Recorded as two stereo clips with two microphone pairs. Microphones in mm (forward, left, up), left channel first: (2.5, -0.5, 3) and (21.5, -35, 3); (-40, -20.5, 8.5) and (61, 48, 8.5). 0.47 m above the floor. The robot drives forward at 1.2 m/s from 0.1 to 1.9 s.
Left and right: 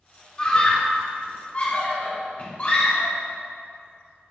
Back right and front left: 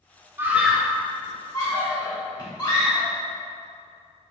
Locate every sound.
0.4 s a scream: 75° left, 1.2 m; by 3.1 s 160° left, 2 m